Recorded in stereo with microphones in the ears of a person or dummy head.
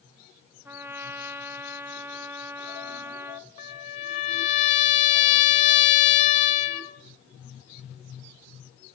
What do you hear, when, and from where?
0.7 s a trumpet: 20° right (ahead or behind), 0.8 m
3.6 s a trumpet: 50° left (ahead or behind), 2.5 m